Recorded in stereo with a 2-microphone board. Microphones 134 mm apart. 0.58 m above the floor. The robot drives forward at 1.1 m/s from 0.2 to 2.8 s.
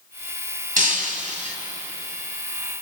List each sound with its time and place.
0.8 s breaking glass: 80° right, 2 m; by 1.6 s 60° right (ahead or behind), 2.5 m